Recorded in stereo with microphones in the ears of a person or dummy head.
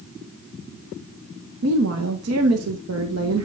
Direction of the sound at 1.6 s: 80° right.